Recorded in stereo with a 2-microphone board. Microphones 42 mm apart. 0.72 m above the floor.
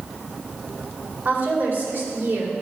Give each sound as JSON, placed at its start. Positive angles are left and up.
{"t": 1.2, "sound": "a woman speaking", "side_deg": -55, "distance_m": 3.0}